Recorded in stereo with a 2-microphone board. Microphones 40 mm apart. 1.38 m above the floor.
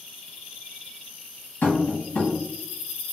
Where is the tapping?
65° left (ahead or behind), 1.3 m.